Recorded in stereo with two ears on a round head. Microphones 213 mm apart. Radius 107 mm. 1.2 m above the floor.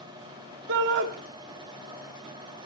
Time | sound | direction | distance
0.7 | a shout | 50° right (ahead or behind) | 3 m